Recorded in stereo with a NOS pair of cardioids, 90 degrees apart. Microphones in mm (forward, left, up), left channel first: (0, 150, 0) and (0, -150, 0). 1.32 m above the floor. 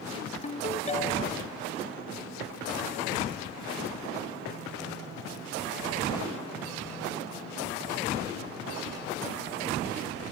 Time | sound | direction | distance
0.4 | a ringtone | 20° left | ?